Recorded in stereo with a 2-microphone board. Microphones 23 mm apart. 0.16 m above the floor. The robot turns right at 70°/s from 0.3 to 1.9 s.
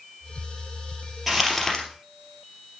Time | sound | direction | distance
1.3 | crumpling | 5° right | 2.5 m